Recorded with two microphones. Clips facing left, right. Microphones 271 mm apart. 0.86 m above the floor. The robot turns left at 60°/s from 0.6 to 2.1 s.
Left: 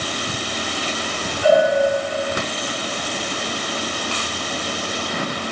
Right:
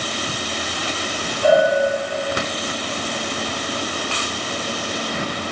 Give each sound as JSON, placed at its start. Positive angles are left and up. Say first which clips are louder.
{"t": 1.4, "sound": "a bell", "louder": "even", "side_deg": -50, "distance_m": 6.0}